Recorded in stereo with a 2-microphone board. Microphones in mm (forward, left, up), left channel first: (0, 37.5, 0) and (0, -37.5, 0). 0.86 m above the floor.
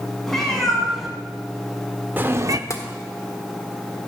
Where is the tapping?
40° left (ahead or behind), 1.6 m.